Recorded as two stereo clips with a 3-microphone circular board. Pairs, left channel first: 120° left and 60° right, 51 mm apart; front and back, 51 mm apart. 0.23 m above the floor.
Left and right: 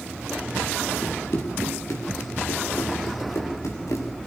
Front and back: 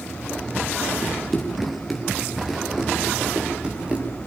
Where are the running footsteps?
85° left, 5.5 m; by 4.0 s 110° left, 8.5 m.